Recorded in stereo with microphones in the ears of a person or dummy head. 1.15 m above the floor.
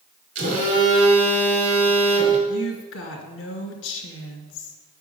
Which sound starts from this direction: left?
A woman speaking, at 2.5 s.